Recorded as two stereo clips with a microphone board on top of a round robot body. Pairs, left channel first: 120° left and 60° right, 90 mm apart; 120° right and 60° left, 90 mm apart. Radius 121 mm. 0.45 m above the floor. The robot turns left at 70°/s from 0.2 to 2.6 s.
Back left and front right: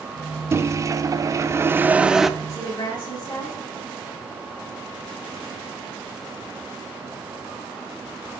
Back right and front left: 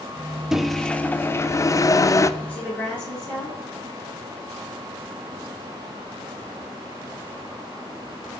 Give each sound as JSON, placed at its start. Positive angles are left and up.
{"t": 0.5, "sound": "a microwave", "azimuth_deg": -20, "distance_m": 0.8}
{"t": 2.4, "sound": "a woman speaking", "azimuth_deg": 175, "distance_m": 8.0}